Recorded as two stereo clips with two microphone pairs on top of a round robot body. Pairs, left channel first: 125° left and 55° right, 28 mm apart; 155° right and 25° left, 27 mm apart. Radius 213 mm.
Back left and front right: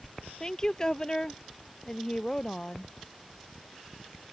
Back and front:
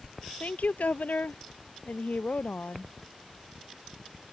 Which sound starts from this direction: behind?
A woman speaking, at 0.4 s.